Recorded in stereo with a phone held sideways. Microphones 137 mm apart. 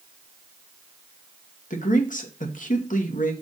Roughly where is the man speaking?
Left.